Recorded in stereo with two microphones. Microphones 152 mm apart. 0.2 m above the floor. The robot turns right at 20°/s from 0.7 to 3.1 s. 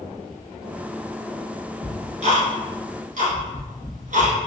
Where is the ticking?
50° right (ahead or behind), 1.1 m; by 4.5 s 65° right (ahead or behind), 1.1 m.